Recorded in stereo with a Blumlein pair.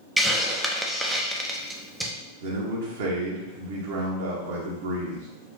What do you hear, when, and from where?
0.2 s a hiss: 5° right, 0.5 m
2.4 s a man speaking: 60° right, 1.2 m